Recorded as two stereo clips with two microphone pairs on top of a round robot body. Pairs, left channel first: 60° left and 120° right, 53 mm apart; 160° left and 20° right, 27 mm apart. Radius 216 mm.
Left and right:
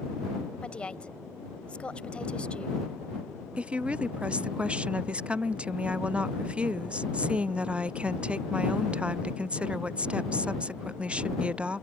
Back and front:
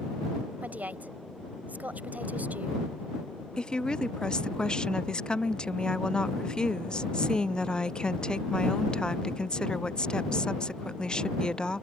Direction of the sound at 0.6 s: 15° right.